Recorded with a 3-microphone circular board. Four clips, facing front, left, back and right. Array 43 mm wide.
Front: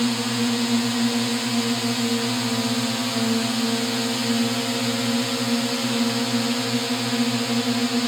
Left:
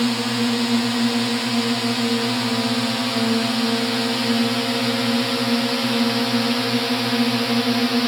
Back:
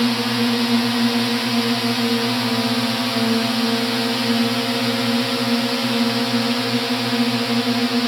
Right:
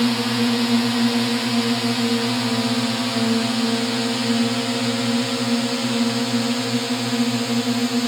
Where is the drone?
175° right; by 8.1 s 135° left.